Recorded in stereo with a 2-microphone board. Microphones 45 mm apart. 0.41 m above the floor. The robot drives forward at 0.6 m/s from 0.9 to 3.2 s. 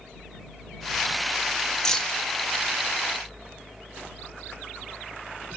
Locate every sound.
1.9 s keys jangling: 15° left (ahead or behind), 0.7 m; by 2.2 s 20° left (ahead or behind), 0.6 m